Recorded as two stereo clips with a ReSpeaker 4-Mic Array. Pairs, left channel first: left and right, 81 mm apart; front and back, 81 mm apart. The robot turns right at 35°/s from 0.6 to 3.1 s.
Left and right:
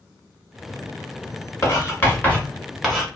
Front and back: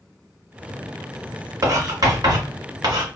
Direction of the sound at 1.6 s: 140° left.